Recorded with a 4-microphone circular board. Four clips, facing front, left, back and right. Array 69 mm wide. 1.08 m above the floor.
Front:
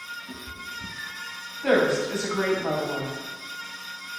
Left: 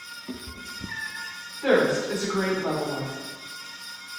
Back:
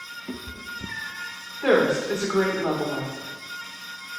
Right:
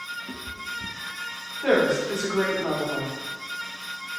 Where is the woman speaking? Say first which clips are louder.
Even, back 1 dB; straight behind, 3.5 m.